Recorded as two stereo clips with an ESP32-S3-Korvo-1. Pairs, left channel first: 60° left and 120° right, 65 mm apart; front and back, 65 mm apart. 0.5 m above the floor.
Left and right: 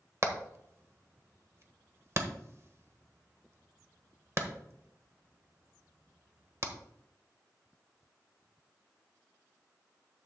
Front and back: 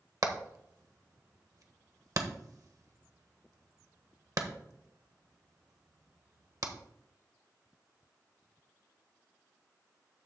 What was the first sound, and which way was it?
Hammering, 160° right.